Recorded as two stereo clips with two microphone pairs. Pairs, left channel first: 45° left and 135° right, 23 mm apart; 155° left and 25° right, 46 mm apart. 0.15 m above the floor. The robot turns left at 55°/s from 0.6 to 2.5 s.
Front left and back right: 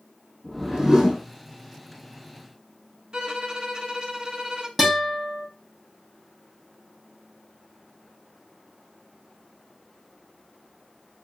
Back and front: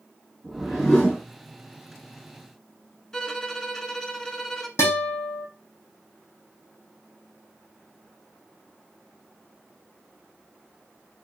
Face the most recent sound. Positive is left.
turn(degrees=145)